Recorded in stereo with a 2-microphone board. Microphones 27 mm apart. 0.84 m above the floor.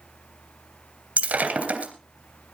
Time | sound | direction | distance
1.2 | breaking glass | 70° right (ahead or behind) | 2.5 m